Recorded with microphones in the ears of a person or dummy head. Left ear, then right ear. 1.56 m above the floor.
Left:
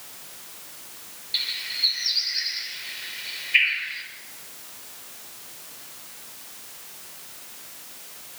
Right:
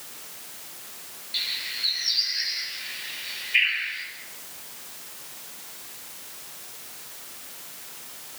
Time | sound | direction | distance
1.3 | a bird | 25° left (ahead or behind) | 6 m